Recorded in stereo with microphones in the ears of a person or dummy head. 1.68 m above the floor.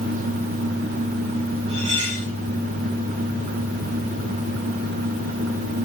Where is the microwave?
No microwave in this recording.